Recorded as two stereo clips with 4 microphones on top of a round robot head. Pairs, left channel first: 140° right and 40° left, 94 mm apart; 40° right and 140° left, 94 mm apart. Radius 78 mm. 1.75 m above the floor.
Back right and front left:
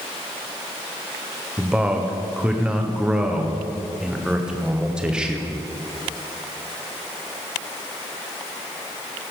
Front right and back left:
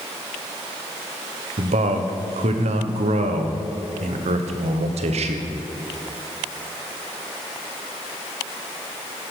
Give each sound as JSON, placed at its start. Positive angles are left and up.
{"t": 1.6, "sound": "a man speaking", "azimuth_deg": 120, "distance_m": 1.3}